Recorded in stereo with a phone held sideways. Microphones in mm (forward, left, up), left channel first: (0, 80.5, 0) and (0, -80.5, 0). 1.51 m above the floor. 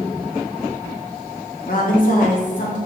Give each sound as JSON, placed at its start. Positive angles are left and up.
{"t": 1.7, "sound": "a woman speaking", "side_deg": 65, "distance_m": 1.3}